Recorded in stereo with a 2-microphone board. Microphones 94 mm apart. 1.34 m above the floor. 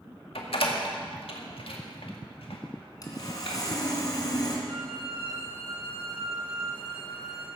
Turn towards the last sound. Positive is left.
turn(degrees=-80)